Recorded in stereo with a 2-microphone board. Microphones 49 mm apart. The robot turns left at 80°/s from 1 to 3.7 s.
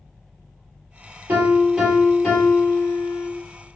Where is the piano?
135° right, 2 m; by 3.3 s 65° left, 2 m.